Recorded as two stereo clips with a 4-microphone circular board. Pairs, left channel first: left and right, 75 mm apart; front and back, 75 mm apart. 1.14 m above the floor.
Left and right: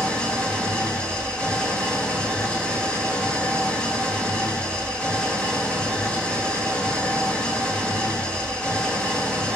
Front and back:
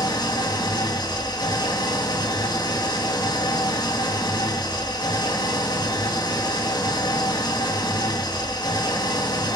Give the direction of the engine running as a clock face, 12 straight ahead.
12 o'clock.